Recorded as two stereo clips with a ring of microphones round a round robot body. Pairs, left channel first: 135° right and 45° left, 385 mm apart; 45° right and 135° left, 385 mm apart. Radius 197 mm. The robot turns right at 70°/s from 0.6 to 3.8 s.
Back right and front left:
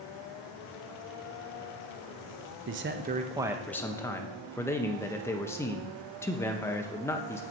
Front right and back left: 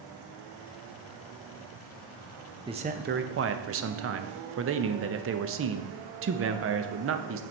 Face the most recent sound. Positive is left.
turn(degrees=145)